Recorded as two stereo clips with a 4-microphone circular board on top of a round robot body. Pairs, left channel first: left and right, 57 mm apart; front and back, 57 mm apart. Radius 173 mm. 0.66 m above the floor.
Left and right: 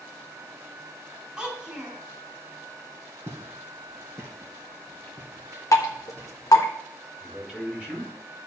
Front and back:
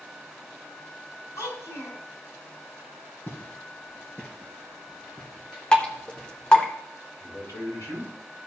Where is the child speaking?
20° right, 4.5 m.